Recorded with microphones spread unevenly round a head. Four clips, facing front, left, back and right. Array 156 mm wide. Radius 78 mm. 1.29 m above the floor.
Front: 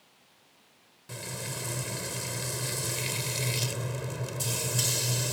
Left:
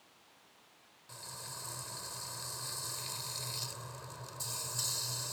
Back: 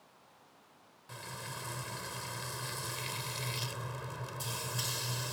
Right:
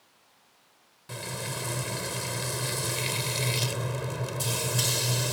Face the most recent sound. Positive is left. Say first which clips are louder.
# right 14 dB, front 5 dB
turn(degrees=-60)